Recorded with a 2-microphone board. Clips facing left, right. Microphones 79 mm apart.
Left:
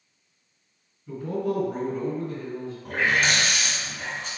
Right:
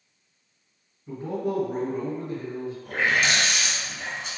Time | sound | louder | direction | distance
1.1 | a man speaking | left 1 dB | 30° right (ahead or behind) | 1.8 m
2.9 | a running tap | left 1 dB | 45° left (ahead or behind) | 1.5 m